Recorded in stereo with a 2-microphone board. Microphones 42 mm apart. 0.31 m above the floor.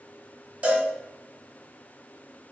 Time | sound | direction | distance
0.6 | a cowbell | 30° right (ahead or behind) | 1.3 m